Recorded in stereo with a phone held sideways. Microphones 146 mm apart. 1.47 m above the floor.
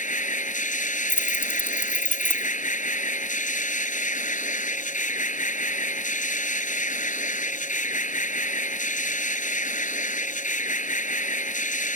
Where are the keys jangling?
15° left (ahead or behind).